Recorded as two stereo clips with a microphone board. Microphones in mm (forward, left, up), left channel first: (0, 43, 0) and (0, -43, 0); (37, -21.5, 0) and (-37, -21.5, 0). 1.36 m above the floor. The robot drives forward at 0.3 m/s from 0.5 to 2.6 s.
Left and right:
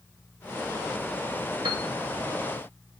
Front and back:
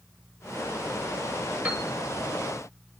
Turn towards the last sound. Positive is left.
turn(degrees=-115)